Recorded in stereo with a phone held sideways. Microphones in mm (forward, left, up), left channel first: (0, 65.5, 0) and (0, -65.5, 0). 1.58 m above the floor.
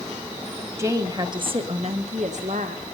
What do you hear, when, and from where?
0.8 s a woman speaking: 20° right (ahead or behind), 1.2 m; by 2.9 s 75° right (ahead or behind), 1.6 m